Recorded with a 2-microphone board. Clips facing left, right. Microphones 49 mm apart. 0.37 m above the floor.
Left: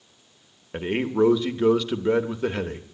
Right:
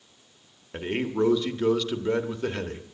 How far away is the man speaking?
About 0.8 m.